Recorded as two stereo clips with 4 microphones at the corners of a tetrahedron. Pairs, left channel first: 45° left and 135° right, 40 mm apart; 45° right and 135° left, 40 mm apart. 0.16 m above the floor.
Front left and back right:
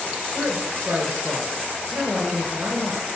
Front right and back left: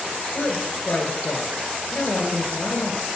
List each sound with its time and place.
0.3 s a woman speaking: 95° right, 2.5 m